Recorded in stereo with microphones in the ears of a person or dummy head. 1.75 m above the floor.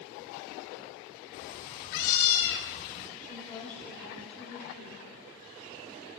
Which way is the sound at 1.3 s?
55° left (ahead or behind).